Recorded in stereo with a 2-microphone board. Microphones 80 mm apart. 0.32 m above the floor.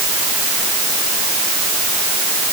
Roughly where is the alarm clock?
I don't hear an alarm clock.